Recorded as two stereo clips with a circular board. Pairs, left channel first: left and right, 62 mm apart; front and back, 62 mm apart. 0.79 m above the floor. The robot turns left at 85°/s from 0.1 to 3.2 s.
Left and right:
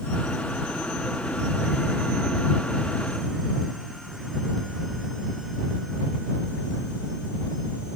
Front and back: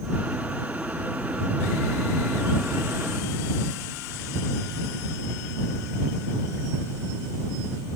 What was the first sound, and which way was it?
Only background noise.